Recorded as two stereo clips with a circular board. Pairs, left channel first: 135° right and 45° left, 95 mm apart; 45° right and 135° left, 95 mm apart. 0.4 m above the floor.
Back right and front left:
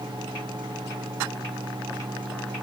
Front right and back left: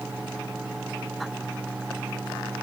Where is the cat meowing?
I don't hear a cat meowing.